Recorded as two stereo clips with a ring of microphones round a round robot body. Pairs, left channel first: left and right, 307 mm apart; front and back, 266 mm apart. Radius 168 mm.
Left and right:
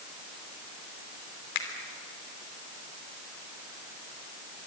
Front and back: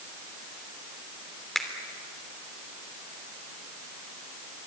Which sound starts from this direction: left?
A finger snap, at 1.6 s.